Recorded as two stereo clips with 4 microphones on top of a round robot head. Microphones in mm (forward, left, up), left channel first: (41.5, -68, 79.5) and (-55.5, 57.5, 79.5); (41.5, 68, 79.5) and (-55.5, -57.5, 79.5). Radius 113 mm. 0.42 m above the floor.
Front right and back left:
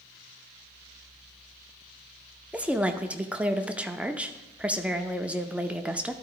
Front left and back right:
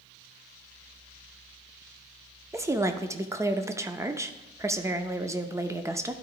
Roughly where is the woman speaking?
Behind.